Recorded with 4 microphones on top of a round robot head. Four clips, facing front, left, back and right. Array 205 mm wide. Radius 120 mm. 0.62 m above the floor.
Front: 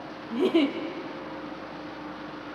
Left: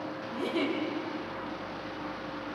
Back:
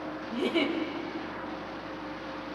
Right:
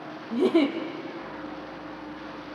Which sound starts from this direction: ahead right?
A giggle, at 0.3 s.